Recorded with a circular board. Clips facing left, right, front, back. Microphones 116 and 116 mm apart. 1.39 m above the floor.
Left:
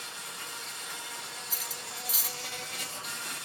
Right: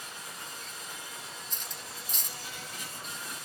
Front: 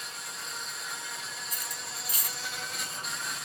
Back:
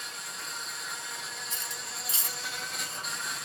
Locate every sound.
0.0 s an insect: 90° left, 2.5 m
1.5 s cutlery clinking: 165° left, 0.5 m